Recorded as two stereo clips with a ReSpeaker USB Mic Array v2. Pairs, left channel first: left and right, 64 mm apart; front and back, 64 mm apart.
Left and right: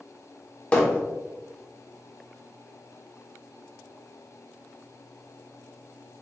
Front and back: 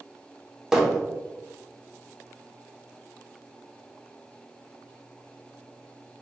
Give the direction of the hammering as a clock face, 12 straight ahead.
8 o'clock.